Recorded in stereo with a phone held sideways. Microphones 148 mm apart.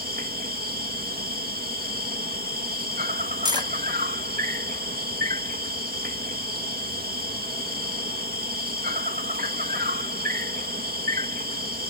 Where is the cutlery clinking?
25° right (ahead or behind).